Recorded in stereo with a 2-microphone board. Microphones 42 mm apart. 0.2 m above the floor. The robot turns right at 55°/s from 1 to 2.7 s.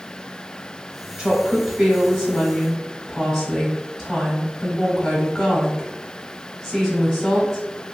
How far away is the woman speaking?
About 1.0 m.